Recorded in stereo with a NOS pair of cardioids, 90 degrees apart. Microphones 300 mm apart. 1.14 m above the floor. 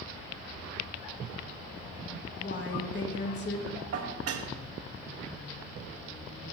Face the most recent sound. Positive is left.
turn(degrees=-55)